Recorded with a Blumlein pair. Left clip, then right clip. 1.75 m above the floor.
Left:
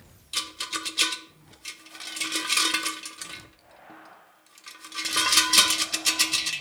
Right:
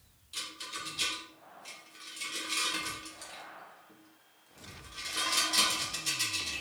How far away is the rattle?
About 0.7 m.